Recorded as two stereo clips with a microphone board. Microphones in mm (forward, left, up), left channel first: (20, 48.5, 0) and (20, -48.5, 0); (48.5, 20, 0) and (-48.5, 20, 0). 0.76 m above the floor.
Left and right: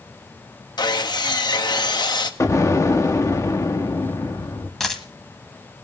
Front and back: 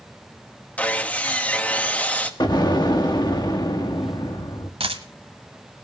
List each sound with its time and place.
0.8 s sawing: 70° left, 0.9 m
2.4 s an explosion: 35° left, 1.3 m
4.8 s a dropped coin: 175° left, 1.3 m